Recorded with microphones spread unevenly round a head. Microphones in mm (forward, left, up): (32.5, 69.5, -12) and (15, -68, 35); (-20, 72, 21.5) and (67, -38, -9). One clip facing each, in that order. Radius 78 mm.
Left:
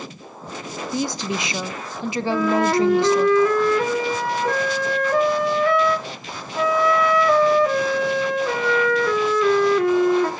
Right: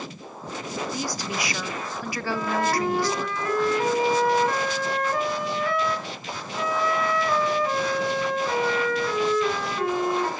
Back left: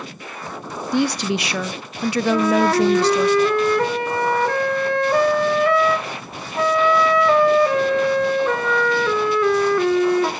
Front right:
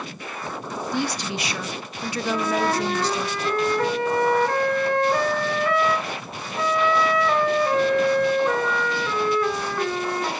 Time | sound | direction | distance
0.9 | a woman speaking | 115° left | 0.8 m
2.3 | a flute | 105° left | 1.7 m